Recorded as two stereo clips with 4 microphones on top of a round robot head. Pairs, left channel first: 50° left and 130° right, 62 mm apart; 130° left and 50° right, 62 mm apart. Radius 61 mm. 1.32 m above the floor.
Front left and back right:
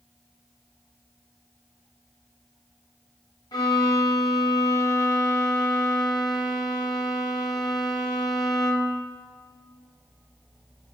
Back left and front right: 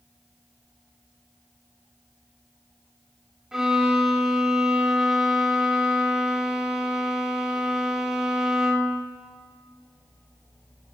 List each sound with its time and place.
3.5 s a violin: 30° left, 0.8 m